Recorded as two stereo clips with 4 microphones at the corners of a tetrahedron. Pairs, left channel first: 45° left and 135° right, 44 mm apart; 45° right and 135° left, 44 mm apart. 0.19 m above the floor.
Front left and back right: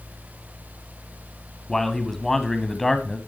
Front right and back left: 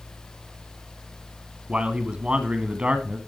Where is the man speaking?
120° left, 1.2 m.